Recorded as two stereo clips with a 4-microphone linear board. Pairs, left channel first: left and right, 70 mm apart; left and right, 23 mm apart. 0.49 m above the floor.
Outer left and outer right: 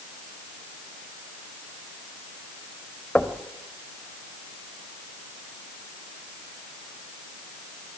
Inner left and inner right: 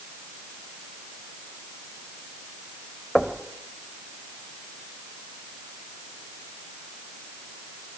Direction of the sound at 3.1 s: 15° left (ahead or behind).